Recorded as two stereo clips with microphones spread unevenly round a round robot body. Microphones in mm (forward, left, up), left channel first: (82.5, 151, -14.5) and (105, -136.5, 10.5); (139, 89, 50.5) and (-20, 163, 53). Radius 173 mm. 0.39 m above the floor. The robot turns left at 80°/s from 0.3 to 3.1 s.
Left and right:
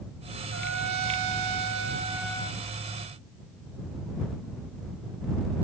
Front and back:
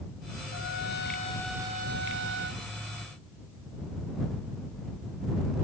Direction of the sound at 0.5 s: 35° right.